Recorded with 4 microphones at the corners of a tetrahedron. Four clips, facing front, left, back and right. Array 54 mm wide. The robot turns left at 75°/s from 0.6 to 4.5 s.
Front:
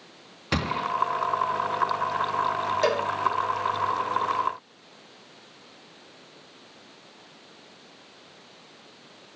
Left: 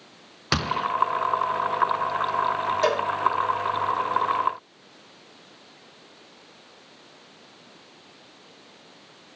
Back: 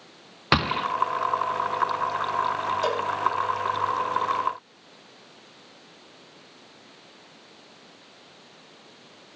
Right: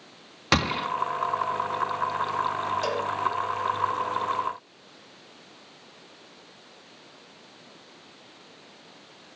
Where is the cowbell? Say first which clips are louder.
Left 5 dB, front 4 dB; 40° left, 2 m; by 3.1 s 25° left, 2 m.